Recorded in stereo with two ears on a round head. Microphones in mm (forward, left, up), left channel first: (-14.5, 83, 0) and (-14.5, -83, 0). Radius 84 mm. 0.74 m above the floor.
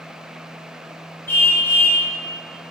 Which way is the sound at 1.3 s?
10° left (ahead or behind).